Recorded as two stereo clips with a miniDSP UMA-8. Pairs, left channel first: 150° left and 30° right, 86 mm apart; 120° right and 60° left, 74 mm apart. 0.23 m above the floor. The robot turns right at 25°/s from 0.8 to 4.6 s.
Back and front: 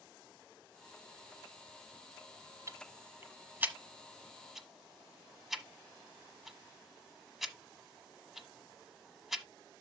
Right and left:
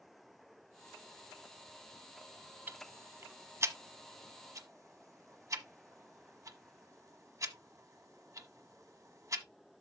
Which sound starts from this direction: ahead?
Ticking, at 2.7 s.